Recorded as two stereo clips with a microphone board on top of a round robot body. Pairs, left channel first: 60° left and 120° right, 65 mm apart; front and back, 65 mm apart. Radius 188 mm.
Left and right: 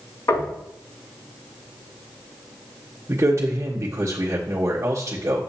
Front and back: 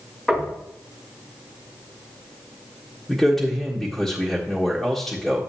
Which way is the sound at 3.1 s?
80° right.